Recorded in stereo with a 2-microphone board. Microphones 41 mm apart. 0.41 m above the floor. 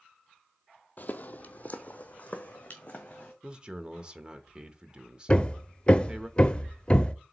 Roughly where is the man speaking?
Right.